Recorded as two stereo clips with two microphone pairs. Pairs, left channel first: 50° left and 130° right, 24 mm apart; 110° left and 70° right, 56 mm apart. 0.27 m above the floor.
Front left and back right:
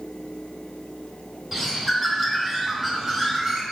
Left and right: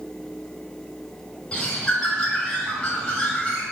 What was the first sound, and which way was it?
A bird, 165° left.